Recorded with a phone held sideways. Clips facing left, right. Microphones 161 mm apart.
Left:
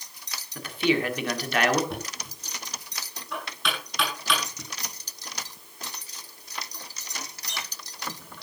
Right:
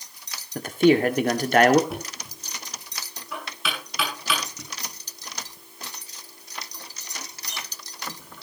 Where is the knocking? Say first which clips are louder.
Right 1 dB; 5° right (ahead or behind), 6 m.